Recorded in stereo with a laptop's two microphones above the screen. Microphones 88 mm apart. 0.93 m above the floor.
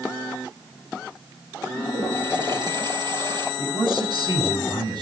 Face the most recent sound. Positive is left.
turn(degrees=-50)  # may be behind; listen again after turning